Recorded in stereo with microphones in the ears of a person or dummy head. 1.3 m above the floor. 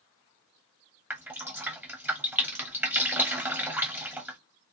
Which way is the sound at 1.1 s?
10° right (ahead or behind).